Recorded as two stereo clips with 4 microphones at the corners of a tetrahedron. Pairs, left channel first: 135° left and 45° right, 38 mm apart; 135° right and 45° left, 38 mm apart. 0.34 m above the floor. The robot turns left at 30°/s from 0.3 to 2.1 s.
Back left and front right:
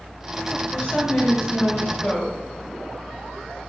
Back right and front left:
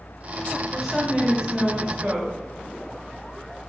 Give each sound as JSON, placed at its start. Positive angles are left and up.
{"t": 0.7, "sound": "a woman speaking", "azimuth_deg": 125, "distance_m": 1.1}